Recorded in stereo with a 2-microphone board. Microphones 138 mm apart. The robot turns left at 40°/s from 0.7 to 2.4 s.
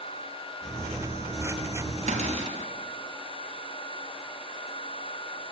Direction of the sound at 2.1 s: 55° right (ahead or behind).